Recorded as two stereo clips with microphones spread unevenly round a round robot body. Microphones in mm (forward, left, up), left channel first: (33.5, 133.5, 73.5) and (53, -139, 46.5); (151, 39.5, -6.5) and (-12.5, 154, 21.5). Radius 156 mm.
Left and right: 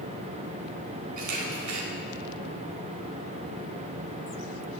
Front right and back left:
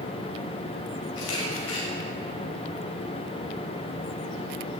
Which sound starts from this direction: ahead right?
A camera shutter, at 1.2 s.